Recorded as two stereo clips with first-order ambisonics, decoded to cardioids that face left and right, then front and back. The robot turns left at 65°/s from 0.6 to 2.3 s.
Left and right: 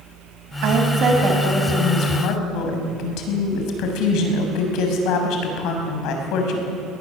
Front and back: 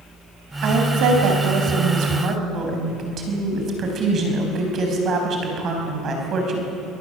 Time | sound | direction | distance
0.6 | a woman speaking | 130° right | 4 m